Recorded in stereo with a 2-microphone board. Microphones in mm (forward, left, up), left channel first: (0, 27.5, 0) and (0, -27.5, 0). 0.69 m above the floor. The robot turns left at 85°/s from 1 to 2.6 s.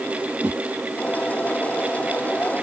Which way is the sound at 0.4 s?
35° right (ahead or behind).